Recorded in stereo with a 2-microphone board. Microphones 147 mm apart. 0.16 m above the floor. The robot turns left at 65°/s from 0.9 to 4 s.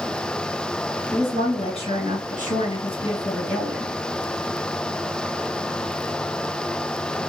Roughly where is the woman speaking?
Behind.